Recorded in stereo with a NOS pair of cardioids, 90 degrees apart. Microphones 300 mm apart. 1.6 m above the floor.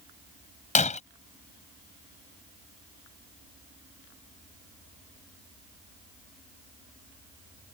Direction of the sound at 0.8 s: 25° left.